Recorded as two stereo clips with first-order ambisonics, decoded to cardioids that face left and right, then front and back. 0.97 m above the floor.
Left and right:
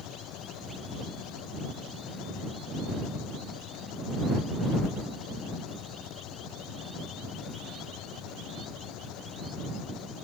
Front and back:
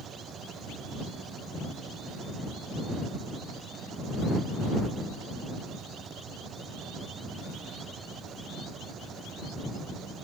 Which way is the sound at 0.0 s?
125° left.